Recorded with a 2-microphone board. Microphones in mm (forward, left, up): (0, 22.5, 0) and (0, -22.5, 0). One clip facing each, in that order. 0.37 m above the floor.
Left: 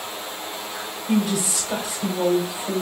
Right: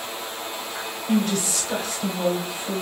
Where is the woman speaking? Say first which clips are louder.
Left 1 dB; 5° left (ahead or behind), 1.0 m.